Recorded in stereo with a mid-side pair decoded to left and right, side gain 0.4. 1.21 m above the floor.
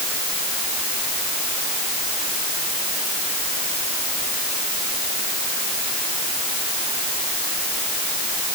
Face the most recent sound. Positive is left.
No sound to turn to.